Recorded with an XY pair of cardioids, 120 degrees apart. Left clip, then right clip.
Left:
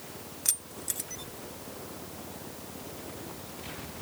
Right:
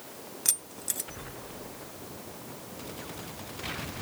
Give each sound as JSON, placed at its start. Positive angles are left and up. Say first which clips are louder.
{"t": 0.5, "sound": "keys jangling", "louder": "right 2 dB", "azimuth_deg": -15}